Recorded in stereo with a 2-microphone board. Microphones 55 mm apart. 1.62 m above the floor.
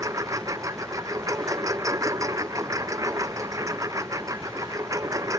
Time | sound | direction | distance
0.0 | a lawn mower | 85° right | ?